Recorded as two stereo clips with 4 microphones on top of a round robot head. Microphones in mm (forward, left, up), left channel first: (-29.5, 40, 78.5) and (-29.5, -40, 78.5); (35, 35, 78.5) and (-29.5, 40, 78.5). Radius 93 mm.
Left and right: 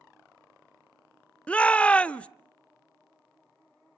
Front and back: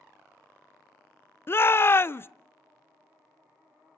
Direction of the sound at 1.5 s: 20° left.